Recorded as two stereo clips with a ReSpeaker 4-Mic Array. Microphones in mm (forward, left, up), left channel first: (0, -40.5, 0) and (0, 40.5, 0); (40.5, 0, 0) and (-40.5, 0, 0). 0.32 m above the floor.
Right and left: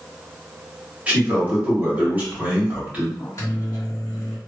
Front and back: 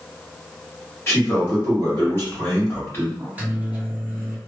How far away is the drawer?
No drawer in this recording.